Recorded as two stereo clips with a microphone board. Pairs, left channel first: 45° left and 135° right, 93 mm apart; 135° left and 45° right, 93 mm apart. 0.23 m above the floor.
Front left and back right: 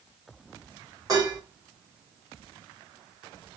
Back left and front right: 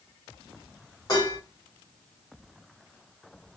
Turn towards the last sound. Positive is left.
turn(degrees=180)